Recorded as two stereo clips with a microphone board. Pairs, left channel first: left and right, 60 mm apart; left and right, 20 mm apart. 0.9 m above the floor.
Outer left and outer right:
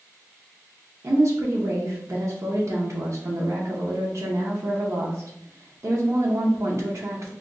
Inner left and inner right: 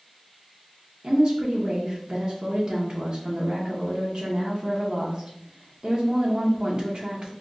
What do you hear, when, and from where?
1.0 s a woman speaking: 50° right (ahead or behind), 0.6 m